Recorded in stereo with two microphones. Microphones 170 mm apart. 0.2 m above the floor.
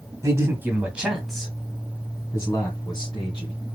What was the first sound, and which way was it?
A man speaking, 20° right (ahead or behind).